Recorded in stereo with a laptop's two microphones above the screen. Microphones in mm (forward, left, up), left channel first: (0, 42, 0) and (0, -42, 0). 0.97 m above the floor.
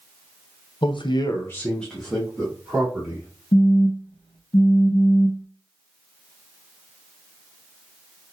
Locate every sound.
0.8 s a man speaking: 65° left (ahead or behind), 0.6 m; by 3.3 s 10° right (ahead or behind), 2 m
3.5 s a phone buzzing: 70° left (ahead or behind), 0.7 m